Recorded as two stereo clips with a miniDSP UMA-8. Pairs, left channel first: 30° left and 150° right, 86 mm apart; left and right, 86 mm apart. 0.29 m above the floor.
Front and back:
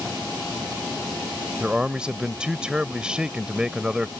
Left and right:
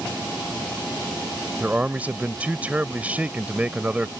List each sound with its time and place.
1.6 s a man speaking: 100° right